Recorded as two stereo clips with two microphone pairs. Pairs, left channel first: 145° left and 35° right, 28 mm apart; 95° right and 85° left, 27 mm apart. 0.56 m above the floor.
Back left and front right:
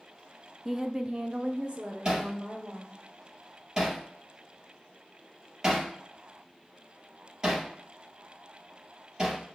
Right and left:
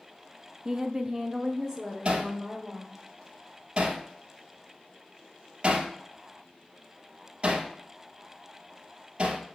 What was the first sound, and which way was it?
A woman speaking, 45° left.